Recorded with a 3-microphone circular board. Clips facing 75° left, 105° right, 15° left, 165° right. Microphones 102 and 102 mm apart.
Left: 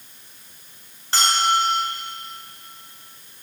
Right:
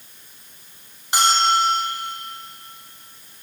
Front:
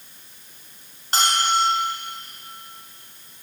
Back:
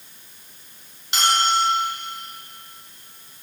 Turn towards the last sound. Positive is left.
turn(degrees=-30)